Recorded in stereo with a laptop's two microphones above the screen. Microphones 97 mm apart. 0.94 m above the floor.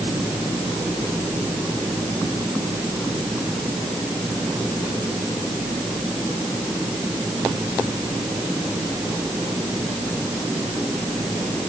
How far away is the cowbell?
No cowbell in this recording.